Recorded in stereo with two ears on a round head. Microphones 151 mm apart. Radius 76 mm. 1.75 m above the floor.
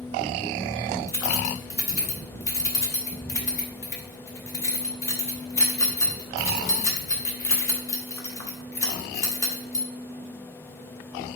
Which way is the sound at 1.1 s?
20° left (ahead or behind).